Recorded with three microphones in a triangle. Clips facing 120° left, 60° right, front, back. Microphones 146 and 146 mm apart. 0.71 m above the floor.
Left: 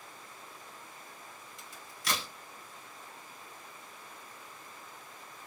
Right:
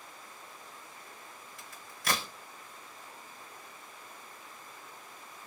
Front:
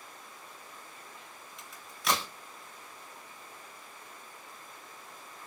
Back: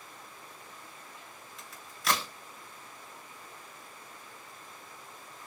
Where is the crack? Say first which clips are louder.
Right 3 dB, even; 90° right, 1.6 m.